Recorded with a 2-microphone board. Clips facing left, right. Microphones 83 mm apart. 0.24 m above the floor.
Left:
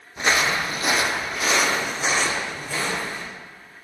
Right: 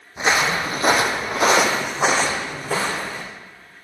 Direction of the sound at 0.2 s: 15° right (ahead or behind).